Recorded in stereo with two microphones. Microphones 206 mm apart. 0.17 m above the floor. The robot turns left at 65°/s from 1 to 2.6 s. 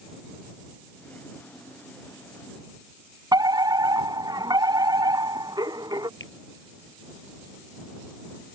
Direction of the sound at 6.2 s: 70° left (ahead or behind).